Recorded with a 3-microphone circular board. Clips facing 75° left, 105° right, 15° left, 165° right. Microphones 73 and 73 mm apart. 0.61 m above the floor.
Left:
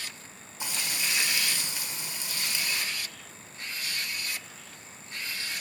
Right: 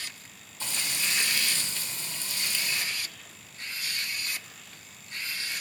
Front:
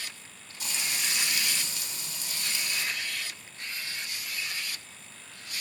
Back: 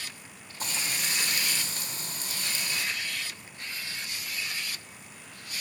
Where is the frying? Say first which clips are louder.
Even, back 1 dB; 150° left, 1.4 m.